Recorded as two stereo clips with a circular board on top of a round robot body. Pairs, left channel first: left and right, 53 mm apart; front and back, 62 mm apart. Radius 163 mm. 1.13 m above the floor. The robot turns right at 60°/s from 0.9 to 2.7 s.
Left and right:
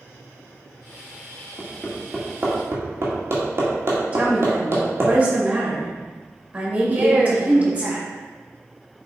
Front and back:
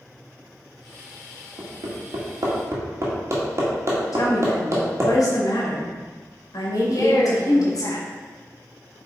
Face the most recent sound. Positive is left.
turn(degrees=-30)